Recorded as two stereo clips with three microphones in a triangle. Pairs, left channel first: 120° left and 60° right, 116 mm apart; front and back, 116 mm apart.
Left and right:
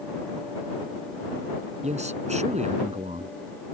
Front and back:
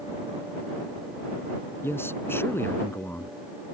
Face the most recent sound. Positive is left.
turn(degrees=-70)